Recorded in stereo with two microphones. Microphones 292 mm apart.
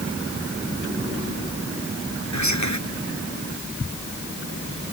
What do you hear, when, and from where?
2.3 s whispering: 70° left (ahead or behind)